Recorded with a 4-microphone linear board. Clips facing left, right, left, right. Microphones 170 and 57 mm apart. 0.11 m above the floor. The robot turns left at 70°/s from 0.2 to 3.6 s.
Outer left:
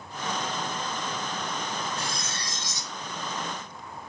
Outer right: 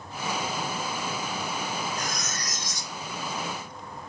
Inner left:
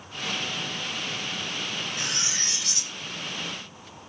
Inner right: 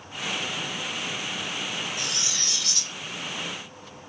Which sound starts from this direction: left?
Cutlery clinking, at 2.0 s.